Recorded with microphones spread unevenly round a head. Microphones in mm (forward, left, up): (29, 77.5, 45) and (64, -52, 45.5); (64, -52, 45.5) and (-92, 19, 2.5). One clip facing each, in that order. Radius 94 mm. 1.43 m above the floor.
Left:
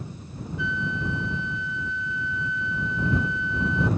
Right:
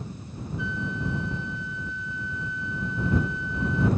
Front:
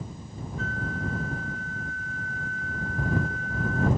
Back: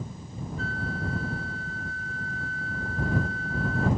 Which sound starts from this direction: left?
A flute, at 0.6 s.